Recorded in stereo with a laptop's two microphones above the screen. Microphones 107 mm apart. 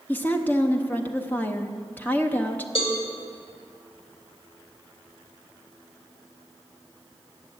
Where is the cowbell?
60° left (ahead or behind), 1.9 m.